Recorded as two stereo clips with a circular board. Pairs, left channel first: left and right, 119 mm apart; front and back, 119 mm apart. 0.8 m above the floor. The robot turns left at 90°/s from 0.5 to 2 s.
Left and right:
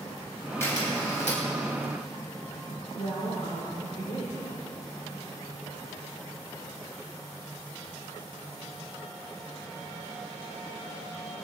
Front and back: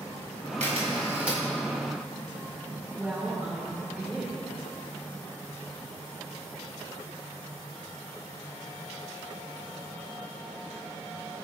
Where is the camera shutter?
160° left, 4.5 m; by 1.4 s 90° left, 4.5 m.